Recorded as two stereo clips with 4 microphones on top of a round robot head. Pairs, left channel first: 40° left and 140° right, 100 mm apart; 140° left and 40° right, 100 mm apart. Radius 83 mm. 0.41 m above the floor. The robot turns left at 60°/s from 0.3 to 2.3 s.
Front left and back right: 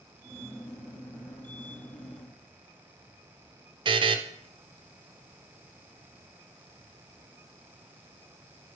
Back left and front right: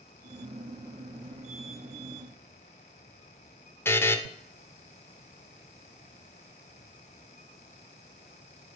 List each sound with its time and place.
3.9 s a buzzer: 155° right, 0.6 m